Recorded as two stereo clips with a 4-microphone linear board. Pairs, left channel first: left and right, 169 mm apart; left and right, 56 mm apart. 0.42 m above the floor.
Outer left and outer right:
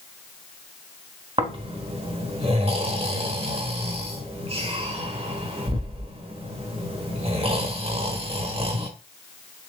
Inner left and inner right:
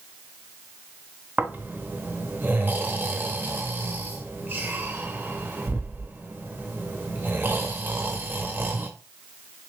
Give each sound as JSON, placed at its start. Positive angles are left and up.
{"t": 1.4, "sound": "snoring", "side_deg": -35, "distance_m": 0.8}